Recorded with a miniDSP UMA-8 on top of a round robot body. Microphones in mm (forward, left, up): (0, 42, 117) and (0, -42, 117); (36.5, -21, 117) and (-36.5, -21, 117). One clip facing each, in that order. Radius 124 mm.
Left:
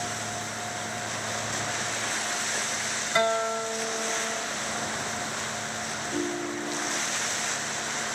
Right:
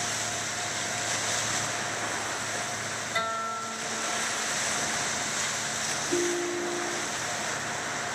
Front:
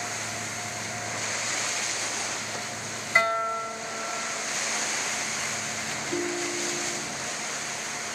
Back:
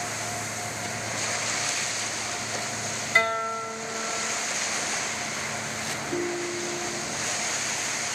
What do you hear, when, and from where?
3.1 s a guitar: 85° left, 3 m
6.1 s a ringtone: 75° right, 1.2 m